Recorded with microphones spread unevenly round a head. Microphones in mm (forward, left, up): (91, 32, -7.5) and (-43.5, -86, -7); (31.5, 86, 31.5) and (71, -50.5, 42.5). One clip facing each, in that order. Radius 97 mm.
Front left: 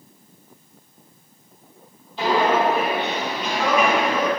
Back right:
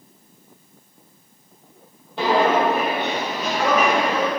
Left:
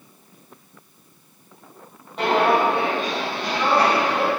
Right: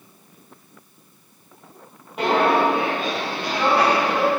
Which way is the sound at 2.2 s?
155° right.